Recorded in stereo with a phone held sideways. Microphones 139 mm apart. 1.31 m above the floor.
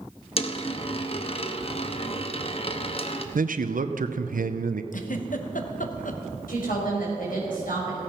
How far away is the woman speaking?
About 5.5 m.